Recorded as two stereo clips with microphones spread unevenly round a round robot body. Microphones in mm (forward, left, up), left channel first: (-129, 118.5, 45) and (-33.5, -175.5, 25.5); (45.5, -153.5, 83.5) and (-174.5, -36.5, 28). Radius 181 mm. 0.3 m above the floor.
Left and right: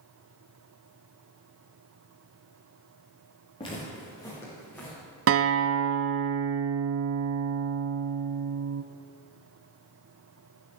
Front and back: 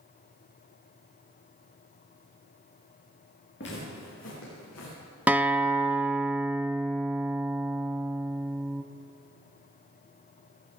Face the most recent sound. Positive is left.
turn(degrees=-125)